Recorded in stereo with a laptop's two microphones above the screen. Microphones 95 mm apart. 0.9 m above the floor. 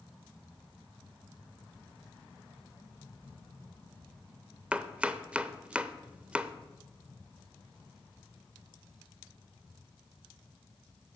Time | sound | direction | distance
4.7 | chopping | 10° right (ahead or behind) | 0.6 m